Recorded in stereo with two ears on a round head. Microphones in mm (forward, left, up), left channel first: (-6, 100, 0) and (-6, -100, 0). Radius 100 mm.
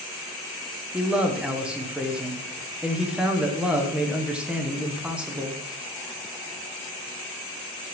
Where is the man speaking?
5° right (ahead or behind), 1.1 m.